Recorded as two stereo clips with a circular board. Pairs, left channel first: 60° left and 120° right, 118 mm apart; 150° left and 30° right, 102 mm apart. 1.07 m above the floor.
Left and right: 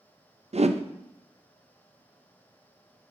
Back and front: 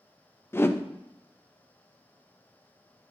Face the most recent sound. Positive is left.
turn(degrees=-145)